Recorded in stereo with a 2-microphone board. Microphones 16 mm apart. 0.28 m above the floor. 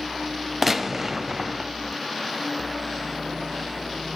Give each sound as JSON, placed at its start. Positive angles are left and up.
{"t": 0.6, "sound": "a gunshot", "side_deg": -20, "distance_m": 0.5}